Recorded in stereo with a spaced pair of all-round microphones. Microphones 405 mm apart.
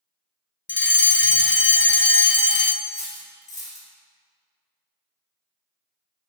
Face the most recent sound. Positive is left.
turn(degrees=10)  # may be behind; listen again after turning